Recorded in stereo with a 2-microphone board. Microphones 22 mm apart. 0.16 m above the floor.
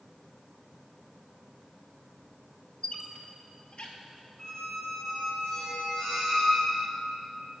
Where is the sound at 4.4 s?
25° left (ahead or behind), 3 m.